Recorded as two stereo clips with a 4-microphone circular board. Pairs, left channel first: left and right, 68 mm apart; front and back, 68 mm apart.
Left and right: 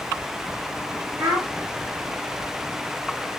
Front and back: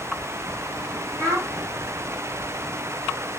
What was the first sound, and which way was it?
A child speaking, 145° right.